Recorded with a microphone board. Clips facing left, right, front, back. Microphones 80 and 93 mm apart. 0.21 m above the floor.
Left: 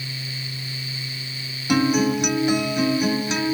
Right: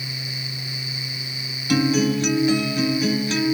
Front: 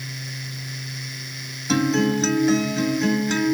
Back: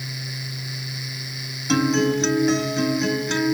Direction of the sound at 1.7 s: 85° left.